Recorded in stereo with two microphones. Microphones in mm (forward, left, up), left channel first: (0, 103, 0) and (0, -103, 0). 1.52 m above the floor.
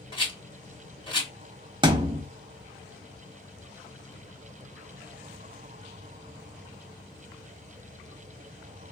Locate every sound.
0.1 s a rattle: 25° left (ahead or behind), 1.3 m
1.8 s a thud: 20° right (ahead or behind), 0.9 m